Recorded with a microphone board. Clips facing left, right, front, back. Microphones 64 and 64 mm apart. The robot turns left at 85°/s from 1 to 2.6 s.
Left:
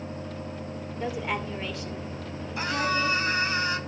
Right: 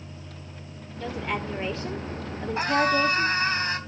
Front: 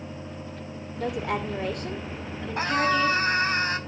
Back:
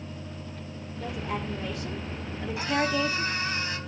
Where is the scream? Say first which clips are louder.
Right 5 dB, front 4 dB; 45° right, 5 m.